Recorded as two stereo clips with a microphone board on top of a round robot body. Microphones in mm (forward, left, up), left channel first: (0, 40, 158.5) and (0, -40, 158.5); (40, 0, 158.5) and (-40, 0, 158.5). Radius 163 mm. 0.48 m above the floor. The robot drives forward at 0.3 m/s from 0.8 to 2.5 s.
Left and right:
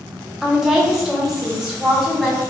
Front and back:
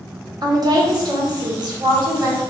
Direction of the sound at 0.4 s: 175° right.